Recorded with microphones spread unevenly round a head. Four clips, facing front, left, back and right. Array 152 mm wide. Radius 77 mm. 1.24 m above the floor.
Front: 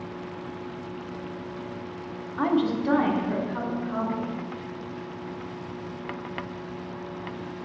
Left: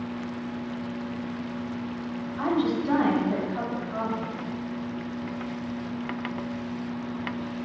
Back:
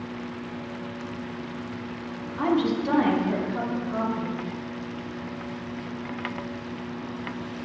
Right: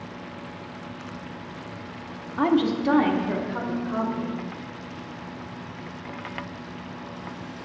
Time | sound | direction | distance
2.4 | a woman speaking | 85° right | 1.5 m